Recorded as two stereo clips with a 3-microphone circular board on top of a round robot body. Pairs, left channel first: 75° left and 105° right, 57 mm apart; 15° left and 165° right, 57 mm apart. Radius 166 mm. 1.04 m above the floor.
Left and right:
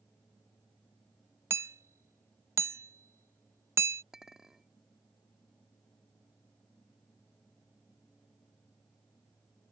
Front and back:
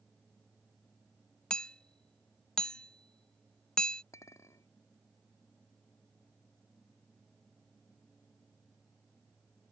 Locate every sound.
1.5 s hammering: 60° right
4.1 s a clink: 25° right